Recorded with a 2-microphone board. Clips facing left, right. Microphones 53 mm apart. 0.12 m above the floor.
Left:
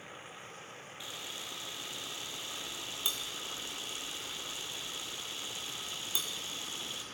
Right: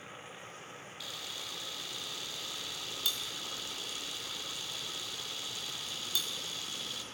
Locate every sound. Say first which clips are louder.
1.0 s a camera shutter: even; 25° left (ahead or behind), 0.7 m